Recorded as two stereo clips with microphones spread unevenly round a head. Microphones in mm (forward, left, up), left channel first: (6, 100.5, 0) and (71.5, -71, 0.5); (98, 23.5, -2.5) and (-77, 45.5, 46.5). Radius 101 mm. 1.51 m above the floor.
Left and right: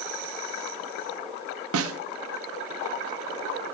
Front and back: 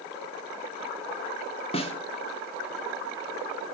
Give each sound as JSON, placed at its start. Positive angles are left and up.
{"t": 1.7, "sound": "a snare drum", "azimuth_deg": -70, "distance_m": 0.6}